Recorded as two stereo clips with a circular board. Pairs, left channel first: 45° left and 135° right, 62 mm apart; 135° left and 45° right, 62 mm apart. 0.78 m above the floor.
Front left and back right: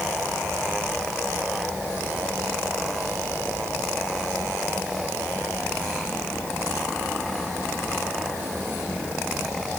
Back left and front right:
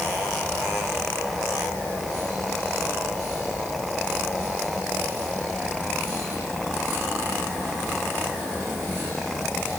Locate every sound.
Only background noise.